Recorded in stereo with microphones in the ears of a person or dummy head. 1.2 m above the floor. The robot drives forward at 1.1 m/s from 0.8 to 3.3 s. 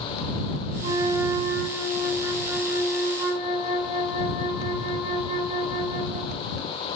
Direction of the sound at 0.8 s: 30° right (ahead or behind).